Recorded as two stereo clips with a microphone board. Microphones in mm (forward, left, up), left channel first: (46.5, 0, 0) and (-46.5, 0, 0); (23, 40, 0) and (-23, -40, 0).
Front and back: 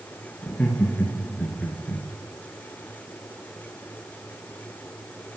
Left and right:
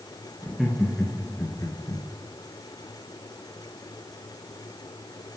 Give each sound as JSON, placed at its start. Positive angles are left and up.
{"t": 0.4, "sound": "laughter", "azimuth_deg": -40, "distance_m": 1.1}